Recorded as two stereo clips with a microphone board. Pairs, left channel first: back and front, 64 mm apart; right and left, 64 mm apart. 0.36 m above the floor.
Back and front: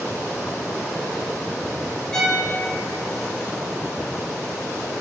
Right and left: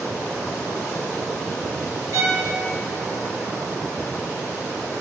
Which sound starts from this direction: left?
A violin, at 2.1 s.